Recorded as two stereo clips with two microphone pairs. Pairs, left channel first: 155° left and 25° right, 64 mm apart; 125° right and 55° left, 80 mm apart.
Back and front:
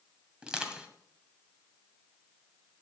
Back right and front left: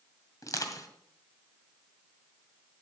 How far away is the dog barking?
No dog barking in this recording.